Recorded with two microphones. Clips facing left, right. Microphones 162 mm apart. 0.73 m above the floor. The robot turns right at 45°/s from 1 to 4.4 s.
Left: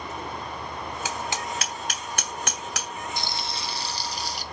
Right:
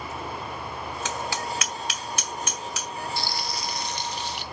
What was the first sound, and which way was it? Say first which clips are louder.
Hammering: right 1 dB; 10° left (ahead or behind).